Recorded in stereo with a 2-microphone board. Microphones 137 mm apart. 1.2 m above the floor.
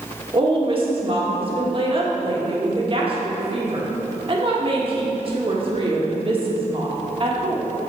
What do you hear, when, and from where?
0.3 s a woman speaking: 40° right (ahead or behind), 1.8 m